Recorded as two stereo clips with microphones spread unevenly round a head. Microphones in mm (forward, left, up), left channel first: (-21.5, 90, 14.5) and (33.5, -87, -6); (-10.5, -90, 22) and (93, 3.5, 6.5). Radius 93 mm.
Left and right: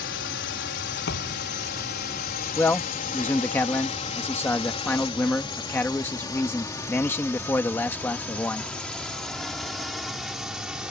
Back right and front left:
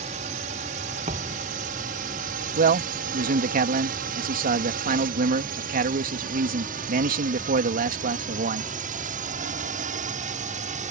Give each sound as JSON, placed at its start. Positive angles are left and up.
{"t": 0.0, "sound": "a drone", "azimuth_deg": 85}
{"t": 1.1, "sound": "a thud", "azimuth_deg": 100}
{"t": 2.6, "sound": "a man speaking", "azimuth_deg": 25}